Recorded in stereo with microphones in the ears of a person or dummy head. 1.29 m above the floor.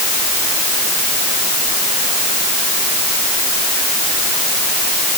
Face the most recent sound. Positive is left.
No sound to turn to.